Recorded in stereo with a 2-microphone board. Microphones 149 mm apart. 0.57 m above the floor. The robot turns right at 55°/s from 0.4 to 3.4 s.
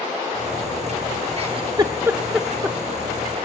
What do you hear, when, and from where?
1.4 s a giggle: 40° right (ahead or behind), 0.9 m; by 2.8 s 10° left (ahead or behind), 0.9 m